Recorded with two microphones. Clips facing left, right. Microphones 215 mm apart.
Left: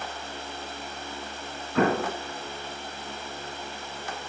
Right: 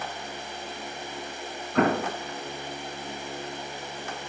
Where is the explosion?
Centre (ahead or behind), 3 m.